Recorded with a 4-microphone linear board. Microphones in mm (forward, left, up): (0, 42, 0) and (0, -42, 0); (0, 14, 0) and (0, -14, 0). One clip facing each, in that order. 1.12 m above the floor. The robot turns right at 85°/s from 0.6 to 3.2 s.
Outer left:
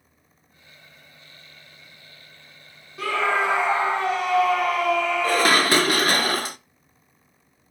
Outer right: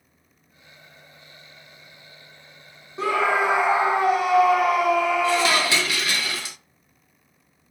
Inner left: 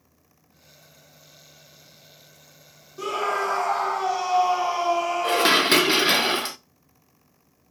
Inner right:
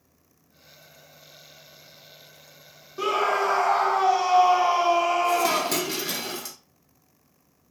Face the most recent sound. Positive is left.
turn(degrees=50)  # may be behind; listen again after turning